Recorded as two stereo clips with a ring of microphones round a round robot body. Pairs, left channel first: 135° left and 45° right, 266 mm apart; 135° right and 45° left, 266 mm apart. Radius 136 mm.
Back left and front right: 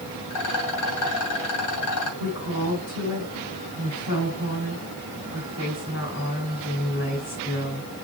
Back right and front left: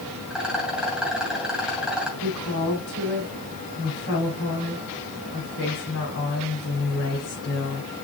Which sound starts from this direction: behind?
A woman speaking, at 2.2 s.